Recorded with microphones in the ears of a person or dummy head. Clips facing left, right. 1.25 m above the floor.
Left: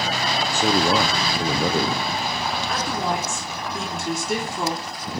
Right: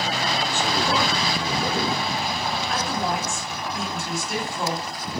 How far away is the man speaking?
About 0.6 m.